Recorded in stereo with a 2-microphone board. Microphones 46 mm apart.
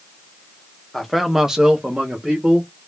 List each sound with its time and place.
0.9 s a man speaking: centre (ahead or behind), 0.8 m; by 2.7 s 20° right (ahead or behind), 1.3 m